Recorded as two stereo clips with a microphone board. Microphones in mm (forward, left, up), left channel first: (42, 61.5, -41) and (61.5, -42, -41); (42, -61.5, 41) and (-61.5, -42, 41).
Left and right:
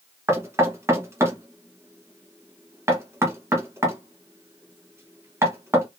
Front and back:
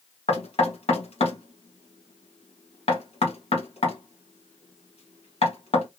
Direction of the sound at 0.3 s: 15° right.